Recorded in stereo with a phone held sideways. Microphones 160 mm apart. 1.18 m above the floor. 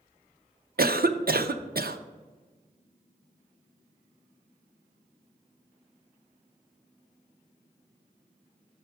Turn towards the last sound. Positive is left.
turn(degrees=-70)  # may be behind; listen again after turning